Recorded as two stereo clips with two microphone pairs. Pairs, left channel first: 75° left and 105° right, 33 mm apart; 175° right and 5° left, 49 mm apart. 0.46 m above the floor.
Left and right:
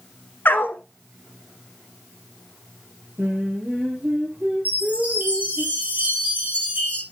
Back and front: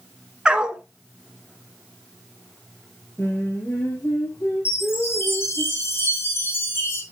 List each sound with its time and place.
0.5 s a dog barking: 75° left, 1.1 m
3.2 s singing: 140° right, 6 m
4.7 s a chime: 145° right, 6.5 m